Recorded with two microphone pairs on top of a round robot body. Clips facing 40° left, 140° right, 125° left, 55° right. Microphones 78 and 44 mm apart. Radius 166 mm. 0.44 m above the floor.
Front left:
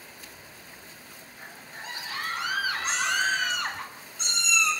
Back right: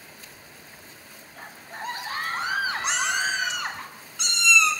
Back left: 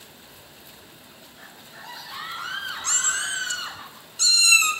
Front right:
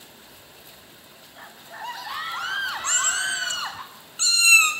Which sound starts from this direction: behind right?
A cat meowing, at 2.8 s.